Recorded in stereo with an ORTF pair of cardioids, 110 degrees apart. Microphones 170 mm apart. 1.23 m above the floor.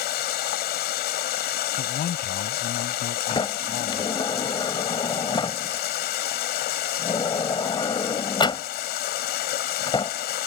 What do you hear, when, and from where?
0.0 s running water: 70° left
1.8 s a man speaking: 55° left
3.3 s a sliding door: 25° left